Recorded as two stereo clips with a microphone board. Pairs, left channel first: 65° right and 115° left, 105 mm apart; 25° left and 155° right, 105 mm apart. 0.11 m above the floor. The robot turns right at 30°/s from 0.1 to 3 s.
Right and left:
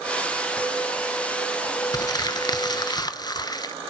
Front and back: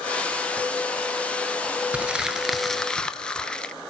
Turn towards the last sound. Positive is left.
turn(degrees=-55)